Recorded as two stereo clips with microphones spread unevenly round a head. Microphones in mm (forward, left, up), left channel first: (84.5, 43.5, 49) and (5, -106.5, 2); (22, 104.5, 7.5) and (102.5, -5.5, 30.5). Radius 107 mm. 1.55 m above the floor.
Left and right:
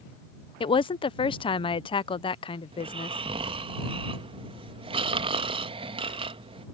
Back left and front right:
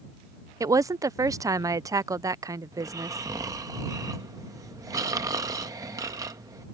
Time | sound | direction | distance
0.6 | a woman speaking | 10° left | ?
2.7 | snoring | 60° right | ?